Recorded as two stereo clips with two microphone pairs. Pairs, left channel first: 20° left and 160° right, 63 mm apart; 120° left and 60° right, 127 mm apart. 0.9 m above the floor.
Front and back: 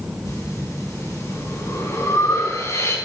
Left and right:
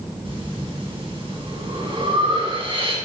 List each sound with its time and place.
0.2 s breathing: 10° right, 3.5 m